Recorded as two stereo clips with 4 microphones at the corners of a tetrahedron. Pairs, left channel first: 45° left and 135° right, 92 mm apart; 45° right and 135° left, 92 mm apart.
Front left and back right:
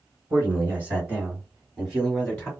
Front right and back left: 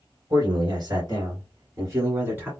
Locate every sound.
0.3 s a man speaking: 160° left, 2.5 m; by 2.5 s 105° left, 1.7 m